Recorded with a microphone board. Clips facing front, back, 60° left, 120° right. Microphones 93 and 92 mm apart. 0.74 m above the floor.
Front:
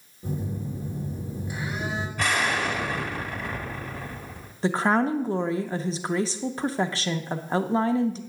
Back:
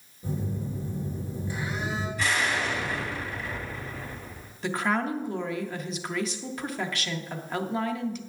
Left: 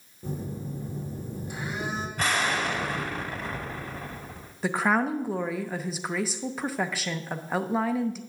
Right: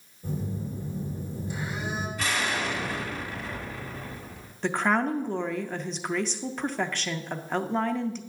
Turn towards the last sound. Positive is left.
turn(degrees=-20)